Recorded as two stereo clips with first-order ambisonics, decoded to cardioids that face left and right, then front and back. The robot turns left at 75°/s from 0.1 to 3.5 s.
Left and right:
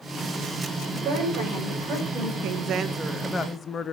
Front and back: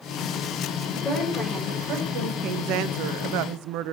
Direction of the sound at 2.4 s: 125° right.